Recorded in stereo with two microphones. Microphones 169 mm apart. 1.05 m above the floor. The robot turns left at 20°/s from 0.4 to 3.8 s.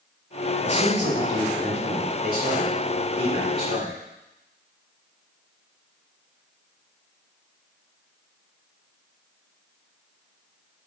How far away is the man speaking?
About 2.5 m.